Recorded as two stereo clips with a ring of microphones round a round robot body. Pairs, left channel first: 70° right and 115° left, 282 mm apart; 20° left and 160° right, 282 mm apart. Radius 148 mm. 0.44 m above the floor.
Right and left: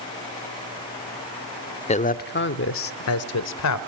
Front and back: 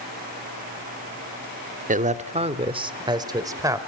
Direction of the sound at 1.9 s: 120° right.